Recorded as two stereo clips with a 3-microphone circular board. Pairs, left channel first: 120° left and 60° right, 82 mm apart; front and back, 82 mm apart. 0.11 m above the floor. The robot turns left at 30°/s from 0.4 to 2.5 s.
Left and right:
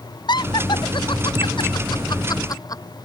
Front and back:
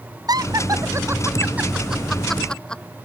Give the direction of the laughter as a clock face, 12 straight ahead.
7 o'clock.